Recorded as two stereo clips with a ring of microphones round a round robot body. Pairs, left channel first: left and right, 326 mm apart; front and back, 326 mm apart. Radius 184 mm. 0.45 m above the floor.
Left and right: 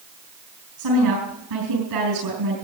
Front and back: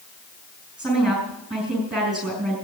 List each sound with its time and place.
0.8 s a woman speaking: 90° right, 6.5 m